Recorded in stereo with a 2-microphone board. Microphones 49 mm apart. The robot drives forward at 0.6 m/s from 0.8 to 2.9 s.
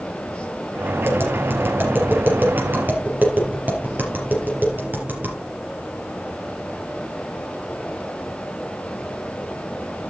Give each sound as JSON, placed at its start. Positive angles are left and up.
{"t": 1.0, "sound": "tapping", "side_deg": -55, "distance_m": 3.5}